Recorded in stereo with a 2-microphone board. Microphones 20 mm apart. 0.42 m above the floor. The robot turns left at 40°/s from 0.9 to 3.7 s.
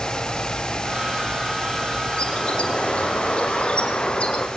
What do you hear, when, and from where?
2.2 s a bird: 130° left, 4 m; by 4.5 s 65° left, 4 m